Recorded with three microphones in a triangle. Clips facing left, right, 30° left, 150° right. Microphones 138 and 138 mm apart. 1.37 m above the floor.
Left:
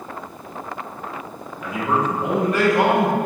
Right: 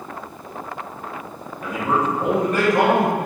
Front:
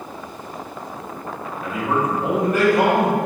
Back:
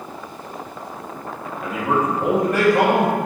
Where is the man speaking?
135° right, 2.5 m.